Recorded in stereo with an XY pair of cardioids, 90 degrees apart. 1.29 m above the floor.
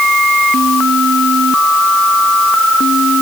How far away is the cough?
I don't hear a cough.